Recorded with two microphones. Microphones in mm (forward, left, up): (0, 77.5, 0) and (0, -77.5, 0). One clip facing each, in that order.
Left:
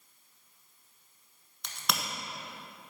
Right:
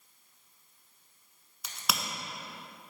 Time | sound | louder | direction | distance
1.6 | a crack | even | 5° right (ahead or behind) | 0.9 m